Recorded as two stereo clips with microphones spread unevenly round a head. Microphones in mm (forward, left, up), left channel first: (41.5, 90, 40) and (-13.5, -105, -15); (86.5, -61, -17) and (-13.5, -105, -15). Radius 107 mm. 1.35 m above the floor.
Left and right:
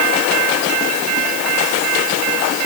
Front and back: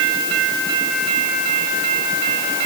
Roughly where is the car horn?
I don't hear a car horn.